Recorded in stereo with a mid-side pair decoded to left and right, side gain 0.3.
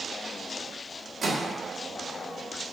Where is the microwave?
60° right, 1.0 m.